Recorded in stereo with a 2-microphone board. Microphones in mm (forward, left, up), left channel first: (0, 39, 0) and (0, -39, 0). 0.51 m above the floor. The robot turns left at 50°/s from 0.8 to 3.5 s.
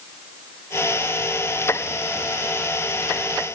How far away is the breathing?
I don't hear breathing.